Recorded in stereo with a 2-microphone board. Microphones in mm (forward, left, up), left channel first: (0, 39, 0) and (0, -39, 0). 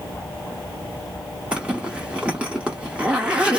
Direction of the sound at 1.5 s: 15° right (ahead or behind).